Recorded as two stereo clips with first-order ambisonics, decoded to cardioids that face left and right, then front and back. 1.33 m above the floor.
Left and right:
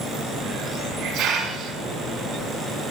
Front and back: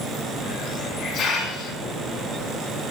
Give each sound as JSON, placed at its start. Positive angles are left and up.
{"t": 0.4, "sound": "a hiss", "azimuth_deg": -60, "distance_m": 2.5}